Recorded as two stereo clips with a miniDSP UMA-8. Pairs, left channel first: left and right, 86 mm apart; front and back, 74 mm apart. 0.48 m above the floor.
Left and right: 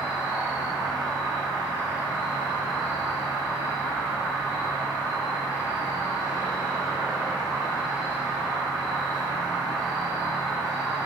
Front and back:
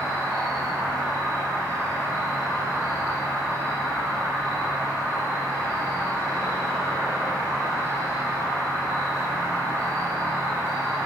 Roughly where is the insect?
Behind.